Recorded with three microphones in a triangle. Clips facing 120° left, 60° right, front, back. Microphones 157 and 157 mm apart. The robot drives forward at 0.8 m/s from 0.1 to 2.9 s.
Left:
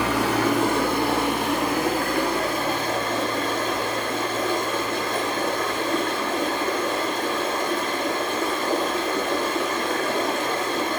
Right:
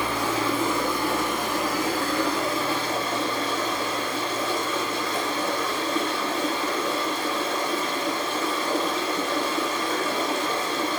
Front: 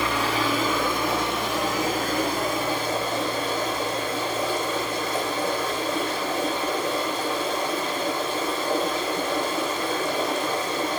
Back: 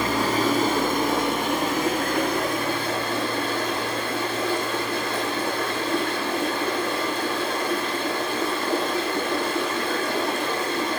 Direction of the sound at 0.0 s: 135° left.